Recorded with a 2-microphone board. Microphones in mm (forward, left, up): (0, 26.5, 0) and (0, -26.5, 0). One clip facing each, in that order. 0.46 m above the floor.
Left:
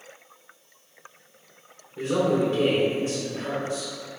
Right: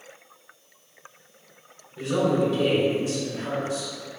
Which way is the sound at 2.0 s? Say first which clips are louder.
Even; 35° left (ahead or behind).